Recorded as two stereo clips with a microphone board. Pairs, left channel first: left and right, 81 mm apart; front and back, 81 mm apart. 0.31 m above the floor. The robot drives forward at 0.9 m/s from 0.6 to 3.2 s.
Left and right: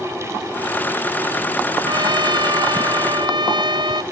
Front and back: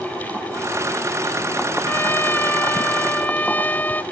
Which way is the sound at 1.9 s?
65° right.